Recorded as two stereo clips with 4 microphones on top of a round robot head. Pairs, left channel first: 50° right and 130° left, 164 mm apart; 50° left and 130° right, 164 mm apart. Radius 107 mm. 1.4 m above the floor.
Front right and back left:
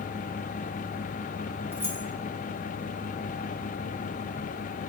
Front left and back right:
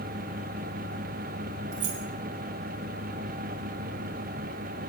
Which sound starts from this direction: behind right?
Keys jangling, at 1.7 s.